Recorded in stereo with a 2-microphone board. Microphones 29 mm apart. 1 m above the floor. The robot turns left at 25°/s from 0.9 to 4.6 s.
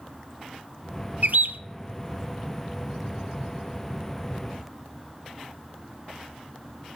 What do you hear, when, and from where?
1.2 s a bird: 65° right (ahead or behind), 0.7 m; by 1.6 s 75° right (ahead or behind), 0.7 m